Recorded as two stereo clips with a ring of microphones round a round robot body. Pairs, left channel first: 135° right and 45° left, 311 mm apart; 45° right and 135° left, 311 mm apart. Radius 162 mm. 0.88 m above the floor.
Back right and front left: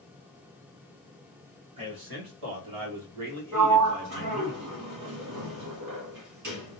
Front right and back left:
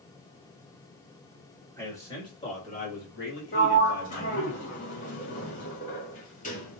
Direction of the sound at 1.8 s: 40° left.